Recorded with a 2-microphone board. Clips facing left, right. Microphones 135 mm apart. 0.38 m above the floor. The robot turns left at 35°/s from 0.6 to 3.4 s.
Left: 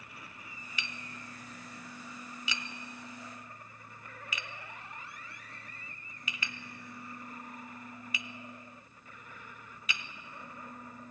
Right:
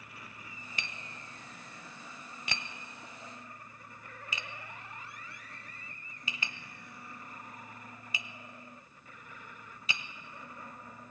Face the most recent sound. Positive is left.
turn(degrees=-30)  # may be behind; listen again after turning